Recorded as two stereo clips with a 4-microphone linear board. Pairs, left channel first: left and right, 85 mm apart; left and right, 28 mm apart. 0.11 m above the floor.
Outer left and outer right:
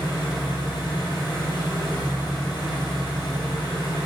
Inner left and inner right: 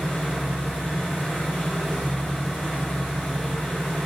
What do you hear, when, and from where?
0.0 s an engine running: 60° left (ahead or behind), 1.0 m